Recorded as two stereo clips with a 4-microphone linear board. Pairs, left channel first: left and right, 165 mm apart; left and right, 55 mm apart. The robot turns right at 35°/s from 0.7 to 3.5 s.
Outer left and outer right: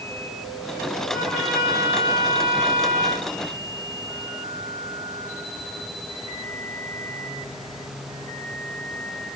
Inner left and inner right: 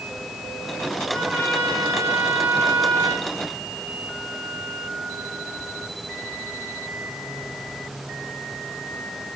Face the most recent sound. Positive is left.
turn(degrees=-110)